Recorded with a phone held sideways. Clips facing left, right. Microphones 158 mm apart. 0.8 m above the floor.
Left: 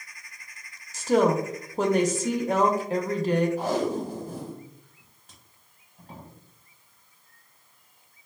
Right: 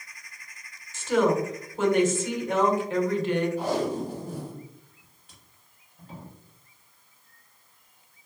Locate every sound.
0.9 s a woman speaking: 40° left (ahead or behind), 0.7 m
3.6 s tape being pulled: 40° left (ahead or behind), 1.5 m